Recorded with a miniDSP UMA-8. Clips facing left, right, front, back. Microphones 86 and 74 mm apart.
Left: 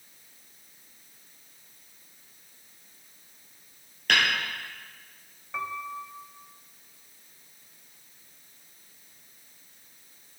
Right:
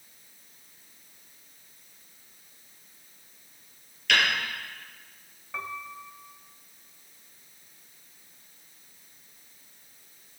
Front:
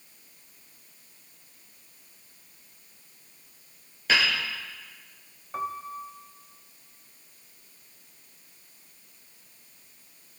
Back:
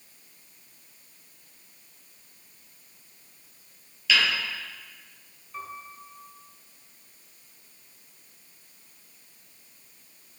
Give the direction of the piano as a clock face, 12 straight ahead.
12 o'clock.